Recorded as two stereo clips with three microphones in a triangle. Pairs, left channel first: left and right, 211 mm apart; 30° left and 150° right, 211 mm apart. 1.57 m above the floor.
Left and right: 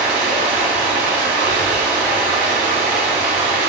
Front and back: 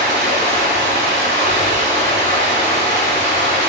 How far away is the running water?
About 1.3 m.